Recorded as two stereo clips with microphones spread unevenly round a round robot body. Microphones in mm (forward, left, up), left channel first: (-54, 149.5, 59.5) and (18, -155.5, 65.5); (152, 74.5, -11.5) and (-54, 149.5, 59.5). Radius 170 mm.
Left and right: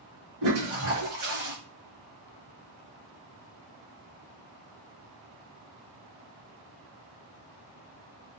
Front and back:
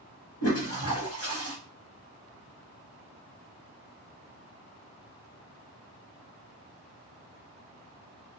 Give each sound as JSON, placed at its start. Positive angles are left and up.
{"t": 0.4, "sound": "a toilet flushing", "azimuth_deg": -55, "distance_m": 0.9}